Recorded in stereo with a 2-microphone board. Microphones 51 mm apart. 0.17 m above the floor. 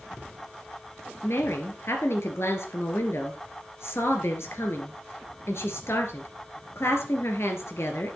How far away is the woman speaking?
About 2.5 m.